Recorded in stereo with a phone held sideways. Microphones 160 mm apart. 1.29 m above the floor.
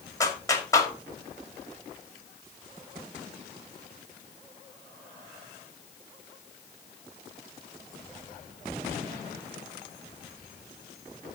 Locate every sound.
0.2 s a clap: 20° left (ahead or behind), 1.9 m